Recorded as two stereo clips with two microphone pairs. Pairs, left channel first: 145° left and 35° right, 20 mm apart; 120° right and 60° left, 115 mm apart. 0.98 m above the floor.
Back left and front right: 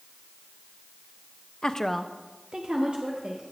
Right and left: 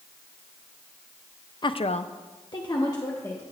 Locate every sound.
1.6 s a woman speaking: 165° right, 0.6 m; by 3.4 s 55° right, 1.7 m